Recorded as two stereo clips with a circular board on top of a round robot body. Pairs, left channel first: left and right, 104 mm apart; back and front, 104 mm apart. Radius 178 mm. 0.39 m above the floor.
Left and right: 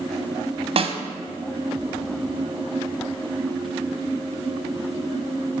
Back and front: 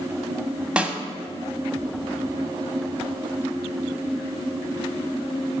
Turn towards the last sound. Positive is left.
turn(degrees=-80)